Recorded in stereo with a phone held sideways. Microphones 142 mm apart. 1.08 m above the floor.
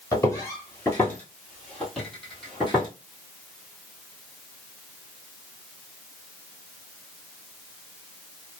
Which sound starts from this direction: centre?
Footsteps, at 0.1 s.